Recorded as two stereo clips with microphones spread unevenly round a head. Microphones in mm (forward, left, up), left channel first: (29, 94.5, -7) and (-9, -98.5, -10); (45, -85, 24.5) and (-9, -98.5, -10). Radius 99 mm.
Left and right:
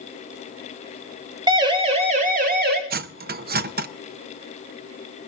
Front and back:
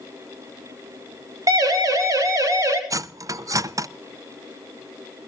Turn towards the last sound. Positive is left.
turn(degrees=-110)